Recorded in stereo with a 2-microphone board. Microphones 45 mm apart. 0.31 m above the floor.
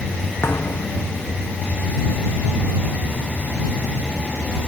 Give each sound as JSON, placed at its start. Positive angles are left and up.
{"t": 0.4, "sound": "a thud", "side_deg": 55}